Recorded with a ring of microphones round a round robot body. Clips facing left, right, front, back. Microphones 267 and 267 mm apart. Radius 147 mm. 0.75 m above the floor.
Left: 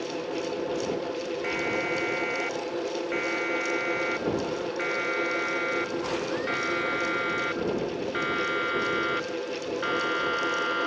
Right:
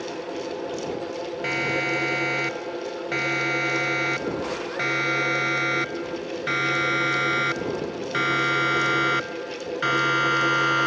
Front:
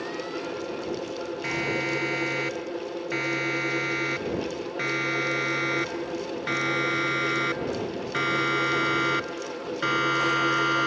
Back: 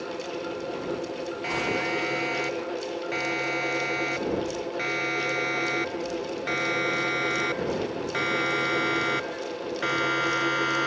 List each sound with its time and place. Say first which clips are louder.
1.4 s a siren: right 1 dB, even; 60° right; by 10.9 s 70° right